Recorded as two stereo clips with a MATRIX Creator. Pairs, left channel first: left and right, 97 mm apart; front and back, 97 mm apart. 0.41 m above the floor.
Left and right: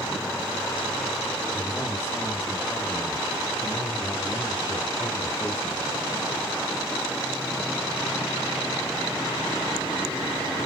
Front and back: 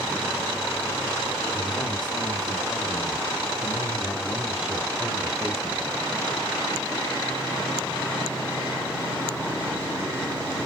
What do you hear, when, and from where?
1.5 s a man speaking: 25° left, 2.5 m; by 5.8 s 130° left, 2 m